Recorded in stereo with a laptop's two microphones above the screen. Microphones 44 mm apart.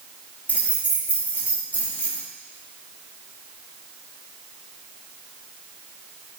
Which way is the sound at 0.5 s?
40° left (ahead or behind).